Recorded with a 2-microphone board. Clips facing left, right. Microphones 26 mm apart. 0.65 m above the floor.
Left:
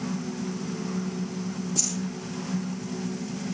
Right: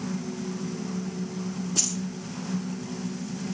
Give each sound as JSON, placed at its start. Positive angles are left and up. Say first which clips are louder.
{"t": 1.8, "sound": "keys jangling", "louder": "right 3 dB", "side_deg": -65, "distance_m": 6.5}